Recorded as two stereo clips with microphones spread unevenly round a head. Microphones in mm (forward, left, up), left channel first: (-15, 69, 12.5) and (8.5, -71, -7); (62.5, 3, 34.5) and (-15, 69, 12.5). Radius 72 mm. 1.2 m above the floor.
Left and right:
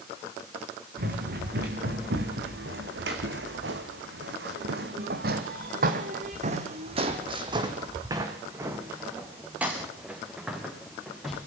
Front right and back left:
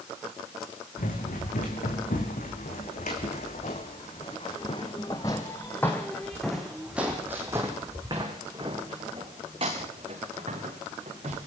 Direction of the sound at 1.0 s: 50° right.